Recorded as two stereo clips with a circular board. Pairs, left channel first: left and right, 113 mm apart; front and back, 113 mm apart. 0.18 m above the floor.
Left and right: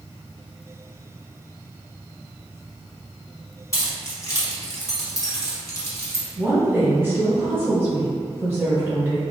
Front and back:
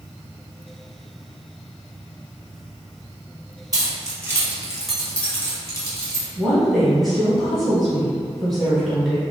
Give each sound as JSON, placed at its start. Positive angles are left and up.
{"t": 3.7, "sound": "keys jangling", "azimuth_deg": 140, "distance_m": 1.0}
{"t": 6.4, "sound": "a woman speaking", "azimuth_deg": -90, "distance_m": 1.3}